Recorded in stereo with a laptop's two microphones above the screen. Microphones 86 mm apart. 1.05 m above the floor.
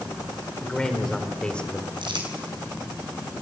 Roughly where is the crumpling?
Right.